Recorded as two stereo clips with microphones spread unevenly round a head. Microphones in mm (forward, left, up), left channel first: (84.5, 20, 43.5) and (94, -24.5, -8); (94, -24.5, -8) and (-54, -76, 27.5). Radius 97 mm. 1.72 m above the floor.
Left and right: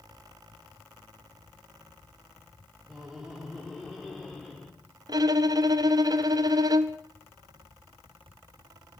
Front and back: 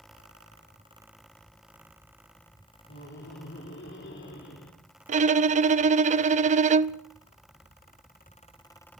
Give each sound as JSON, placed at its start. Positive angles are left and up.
{"t": 2.9, "sound": "laughter", "azimuth_deg": 15, "distance_m": 4.0}
{"t": 5.1, "sound": "a violin", "azimuth_deg": -130, "distance_m": 0.6}